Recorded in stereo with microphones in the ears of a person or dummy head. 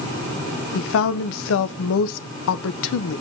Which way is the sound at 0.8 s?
65° left (ahead or behind).